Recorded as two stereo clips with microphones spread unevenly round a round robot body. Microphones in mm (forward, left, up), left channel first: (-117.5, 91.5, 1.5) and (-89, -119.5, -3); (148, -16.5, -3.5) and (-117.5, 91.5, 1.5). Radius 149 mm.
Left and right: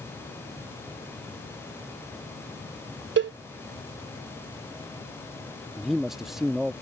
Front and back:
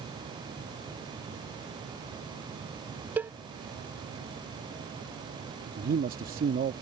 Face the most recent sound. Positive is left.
turn(degrees=-170)